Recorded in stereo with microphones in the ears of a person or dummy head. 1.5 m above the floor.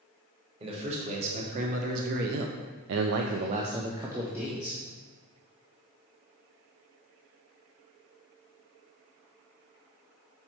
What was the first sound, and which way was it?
A man speaking, 35° right (ahead or behind).